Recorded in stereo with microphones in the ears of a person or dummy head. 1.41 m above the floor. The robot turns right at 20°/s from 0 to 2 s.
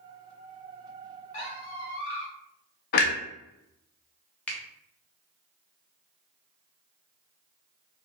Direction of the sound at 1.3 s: 25° left (ahead or behind).